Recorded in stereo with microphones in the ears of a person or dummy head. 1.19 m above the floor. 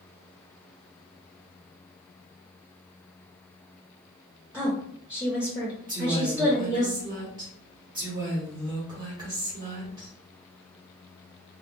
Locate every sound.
4.5 s a woman speaking: 10° right (ahead or behind), 0.6 m
5.9 s a woman speaking: 25° right (ahead or behind), 1.1 m